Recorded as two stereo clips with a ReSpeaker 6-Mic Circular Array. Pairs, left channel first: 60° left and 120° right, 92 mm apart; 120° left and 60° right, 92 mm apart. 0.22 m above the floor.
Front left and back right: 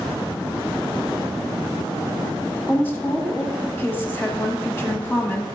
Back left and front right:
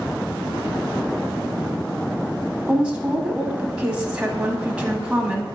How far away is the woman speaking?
About 1.1 m.